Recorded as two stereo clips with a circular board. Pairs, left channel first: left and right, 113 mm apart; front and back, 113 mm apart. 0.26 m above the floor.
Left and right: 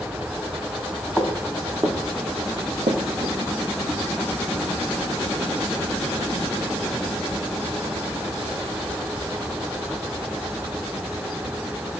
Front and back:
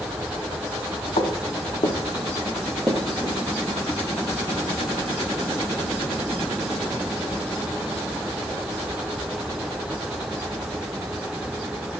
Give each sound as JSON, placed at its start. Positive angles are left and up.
{"t": 1.2, "sound": "footsteps", "azimuth_deg": -5, "distance_m": 1.0}